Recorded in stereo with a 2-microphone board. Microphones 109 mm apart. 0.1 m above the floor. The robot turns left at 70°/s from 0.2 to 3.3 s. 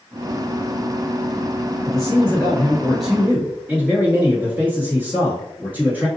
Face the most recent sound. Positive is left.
turn(degrees=-25)